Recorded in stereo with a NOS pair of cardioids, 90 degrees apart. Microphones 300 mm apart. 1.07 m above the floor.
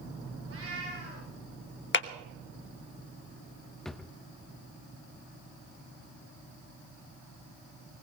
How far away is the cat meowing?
About 8.5 m.